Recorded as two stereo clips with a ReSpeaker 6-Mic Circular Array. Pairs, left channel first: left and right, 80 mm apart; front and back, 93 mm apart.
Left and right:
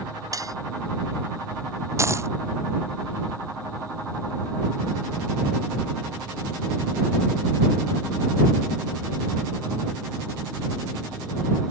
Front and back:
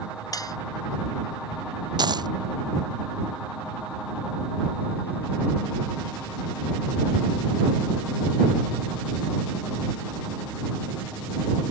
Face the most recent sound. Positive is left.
turn(degrees=-140)